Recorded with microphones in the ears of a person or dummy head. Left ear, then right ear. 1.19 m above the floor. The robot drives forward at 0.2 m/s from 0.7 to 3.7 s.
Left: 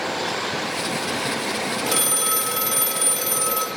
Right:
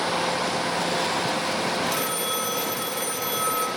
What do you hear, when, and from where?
1.9 s a phone ringing: 60° left (ahead or behind), 1.3 m; by 3.7 s 70° left (ahead or behind), 1.1 m